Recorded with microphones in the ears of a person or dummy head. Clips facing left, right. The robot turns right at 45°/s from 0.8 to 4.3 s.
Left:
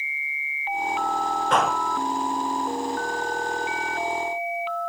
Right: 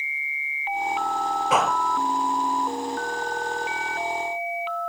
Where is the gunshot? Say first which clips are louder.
Even; 5° right (ahead or behind); by 1.8 s 10° left (ahead or behind).